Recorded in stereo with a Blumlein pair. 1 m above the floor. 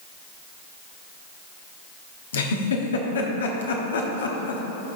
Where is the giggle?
65° left, 1.0 m.